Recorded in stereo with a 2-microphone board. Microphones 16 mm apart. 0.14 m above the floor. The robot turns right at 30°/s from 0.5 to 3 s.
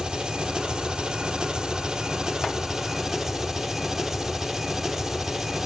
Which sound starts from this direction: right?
An engine running, at 0.0 s.